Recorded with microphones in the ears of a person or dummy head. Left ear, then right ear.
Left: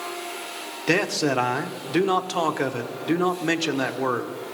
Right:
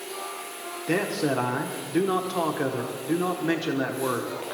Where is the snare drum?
No snare drum in this recording.